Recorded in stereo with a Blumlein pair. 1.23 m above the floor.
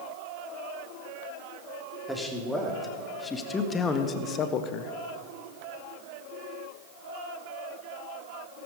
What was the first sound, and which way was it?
A man speaking, 5° left.